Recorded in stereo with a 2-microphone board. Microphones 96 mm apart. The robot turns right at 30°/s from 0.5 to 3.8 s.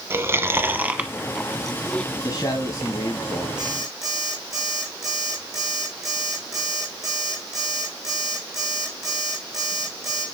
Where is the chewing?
25° right (ahead or behind), 0.8 m; by 2.0 s 10° left (ahead or behind), 0.8 m.